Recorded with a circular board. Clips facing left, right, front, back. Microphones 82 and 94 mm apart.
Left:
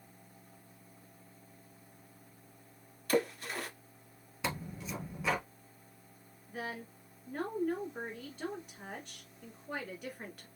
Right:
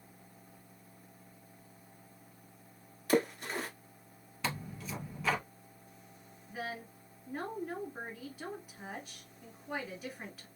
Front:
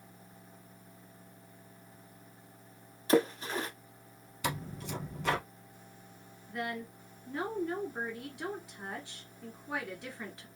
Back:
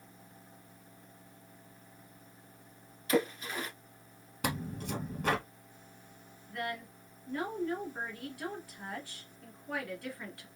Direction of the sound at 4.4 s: 175° left.